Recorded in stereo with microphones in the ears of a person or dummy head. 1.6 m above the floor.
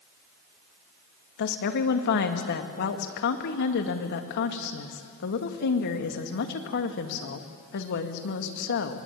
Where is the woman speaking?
65° left (ahead or behind), 1.8 m.